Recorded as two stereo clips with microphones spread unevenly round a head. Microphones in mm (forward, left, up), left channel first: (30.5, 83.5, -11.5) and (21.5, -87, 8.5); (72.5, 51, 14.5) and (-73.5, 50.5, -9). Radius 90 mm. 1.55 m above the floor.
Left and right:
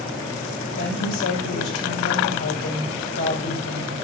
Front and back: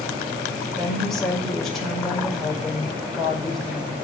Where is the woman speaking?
85° left, 4.5 m.